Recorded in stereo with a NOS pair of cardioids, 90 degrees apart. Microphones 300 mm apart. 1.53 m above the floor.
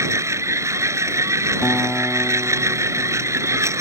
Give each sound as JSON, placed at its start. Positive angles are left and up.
{"t": 0.0, "sound": "a machine running", "azimuth_deg": -10}
{"t": 1.6, "sound": "a guitar", "azimuth_deg": 5}